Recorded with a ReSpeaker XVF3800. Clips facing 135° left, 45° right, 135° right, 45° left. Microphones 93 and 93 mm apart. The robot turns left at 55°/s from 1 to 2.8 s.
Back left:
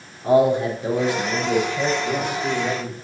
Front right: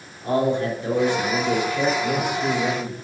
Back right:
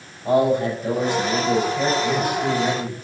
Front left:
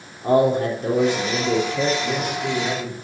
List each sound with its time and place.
0.2 s a man speaking: 60° left, 4 m; by 1.9 s 10° left, 4 m
2.0 s a man speaking: 40° right, 3.5 m; by 2.9 s 85° right, 3.5 m